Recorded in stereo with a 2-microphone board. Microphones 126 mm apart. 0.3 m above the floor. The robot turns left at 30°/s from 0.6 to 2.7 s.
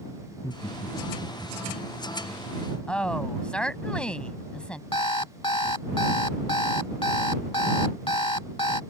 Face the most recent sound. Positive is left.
turn(degrees=40)  # may be behind; listen again after turning